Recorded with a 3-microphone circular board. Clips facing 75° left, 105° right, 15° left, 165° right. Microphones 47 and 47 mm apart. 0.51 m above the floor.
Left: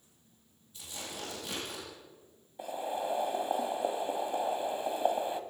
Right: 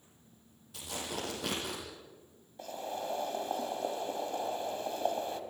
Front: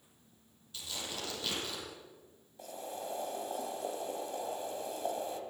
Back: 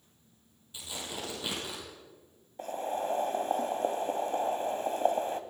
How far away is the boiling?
About 1.8 m.